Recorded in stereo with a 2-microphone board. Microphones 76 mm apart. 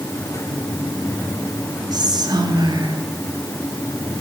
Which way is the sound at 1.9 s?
65° right (ahead or behind).